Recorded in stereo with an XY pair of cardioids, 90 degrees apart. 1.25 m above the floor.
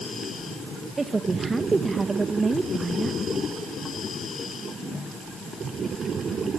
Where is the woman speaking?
30° right, 1.6 m.